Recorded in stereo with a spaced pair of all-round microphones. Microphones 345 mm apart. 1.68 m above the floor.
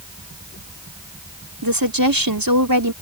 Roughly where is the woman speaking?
Right.